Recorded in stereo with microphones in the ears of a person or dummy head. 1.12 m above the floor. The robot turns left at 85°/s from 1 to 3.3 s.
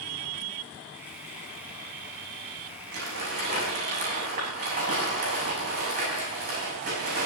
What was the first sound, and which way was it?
Crumpling, 100° right.